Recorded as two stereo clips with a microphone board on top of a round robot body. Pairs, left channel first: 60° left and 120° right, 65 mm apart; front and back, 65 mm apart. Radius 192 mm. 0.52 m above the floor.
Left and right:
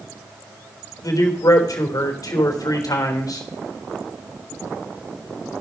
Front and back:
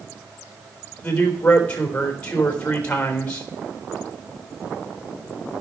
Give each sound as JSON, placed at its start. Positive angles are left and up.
{"t": 1.0, "sound": "a man speaking", "azimuth_deg": 70, "distance_m": 3.5}